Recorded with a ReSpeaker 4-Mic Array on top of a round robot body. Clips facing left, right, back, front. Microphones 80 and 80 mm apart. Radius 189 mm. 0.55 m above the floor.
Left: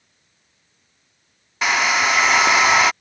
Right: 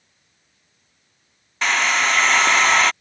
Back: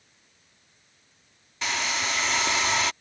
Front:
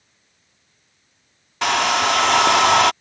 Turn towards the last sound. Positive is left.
turn(degrees=10)